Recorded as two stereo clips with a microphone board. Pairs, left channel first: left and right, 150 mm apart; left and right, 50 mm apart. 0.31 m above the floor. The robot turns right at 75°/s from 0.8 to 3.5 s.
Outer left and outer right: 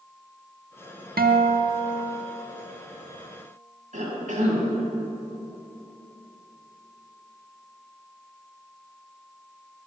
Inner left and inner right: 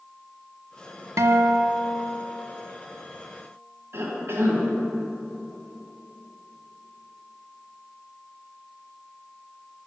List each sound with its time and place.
1.2 s a guitar: 90° right, 0.5 m; by 2.4 s 5° left, 0.5 m
3.9 s a cough: 60° right (ahead or behind), 2.5 m